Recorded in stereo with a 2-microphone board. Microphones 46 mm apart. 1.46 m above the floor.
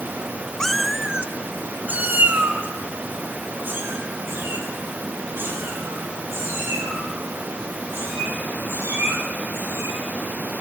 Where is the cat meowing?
10° left (ahead or behind), 0.7 m; by 10.0 s 50° right (ahead or behind), 9 m.